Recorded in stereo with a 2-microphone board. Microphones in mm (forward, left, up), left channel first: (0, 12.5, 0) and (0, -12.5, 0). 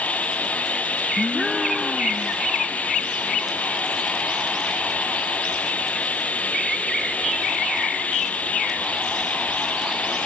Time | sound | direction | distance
0.0 | running water | 70° left (ahead or behind) | ?
1.2 | a gasp | 5° left (ahead or behind) | ?